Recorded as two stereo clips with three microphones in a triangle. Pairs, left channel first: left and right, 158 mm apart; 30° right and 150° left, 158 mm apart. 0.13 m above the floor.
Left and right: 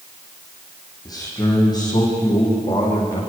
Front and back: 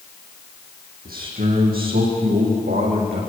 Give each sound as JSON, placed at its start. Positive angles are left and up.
{"t": 1.1, "sound": "a man speaking", "azimuth_deg": 155, "distance_m": 7.5}